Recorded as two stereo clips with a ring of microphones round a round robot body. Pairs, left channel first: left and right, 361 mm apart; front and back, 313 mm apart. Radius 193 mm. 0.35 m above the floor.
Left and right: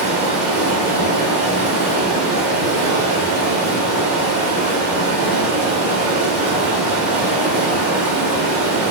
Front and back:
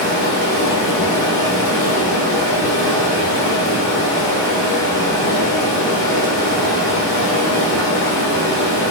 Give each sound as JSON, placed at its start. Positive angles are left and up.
{"t": 0.0, "sound": "running water", "azimuth_deg": -5, "distance_m": 1.1}